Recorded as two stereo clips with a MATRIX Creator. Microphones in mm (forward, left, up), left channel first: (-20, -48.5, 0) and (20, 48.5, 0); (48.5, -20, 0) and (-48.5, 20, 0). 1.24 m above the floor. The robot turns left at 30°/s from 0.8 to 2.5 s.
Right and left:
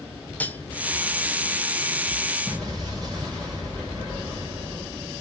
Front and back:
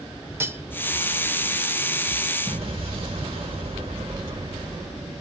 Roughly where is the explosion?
Behind left.